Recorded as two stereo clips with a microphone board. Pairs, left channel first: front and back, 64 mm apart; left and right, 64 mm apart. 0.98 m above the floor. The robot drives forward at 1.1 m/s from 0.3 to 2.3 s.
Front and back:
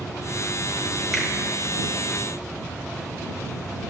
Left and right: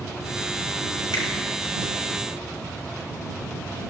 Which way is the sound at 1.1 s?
90° left.